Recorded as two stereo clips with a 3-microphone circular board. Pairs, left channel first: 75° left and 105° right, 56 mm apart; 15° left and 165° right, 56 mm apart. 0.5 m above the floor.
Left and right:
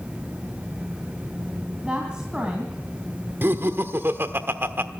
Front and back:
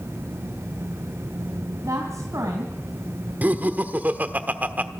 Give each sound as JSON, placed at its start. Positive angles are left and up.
{"t": 1.8, "sound": "a woman speaking", "azimuth_deg": -175, "distance_m": 3.0}
{"t": 3.4, "sound": "laughter", "azimuth_deg": -120, "distance_m": 1.2}